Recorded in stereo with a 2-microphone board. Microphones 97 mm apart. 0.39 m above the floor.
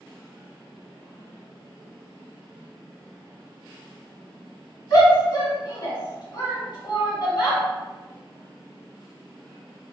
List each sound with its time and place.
4.9 s a shout: 45° left (ahead or behind), 1.3 m